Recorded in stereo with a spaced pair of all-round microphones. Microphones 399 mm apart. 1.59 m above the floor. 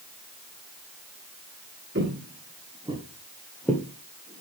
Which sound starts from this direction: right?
Footsteps, at 1.9 s.